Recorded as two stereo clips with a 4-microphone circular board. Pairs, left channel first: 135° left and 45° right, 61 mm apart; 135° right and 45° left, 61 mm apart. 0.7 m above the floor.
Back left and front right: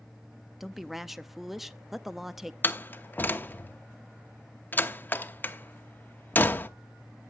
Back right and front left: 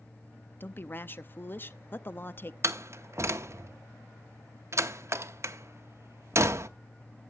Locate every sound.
0.6 s a woman speaking: 130° right, 0.5 m
2.6 s a door slam: 80° left, 0.8 m